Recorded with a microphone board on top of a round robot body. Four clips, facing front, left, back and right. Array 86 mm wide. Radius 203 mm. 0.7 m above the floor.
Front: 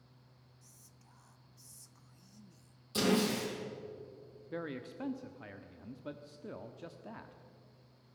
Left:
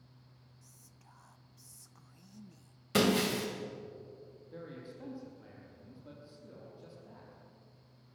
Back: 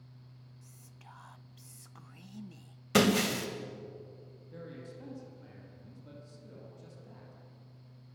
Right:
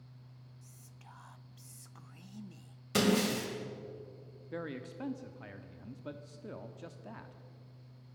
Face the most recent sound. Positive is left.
turn(degrees=-45)